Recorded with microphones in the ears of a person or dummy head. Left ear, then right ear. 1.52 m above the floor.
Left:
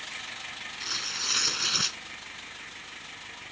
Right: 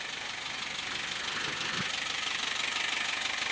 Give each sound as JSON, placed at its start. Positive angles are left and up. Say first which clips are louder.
{"t": 0.8, "sound": "tearing paper", "louder": "left 8 dB", "side_deg": 80}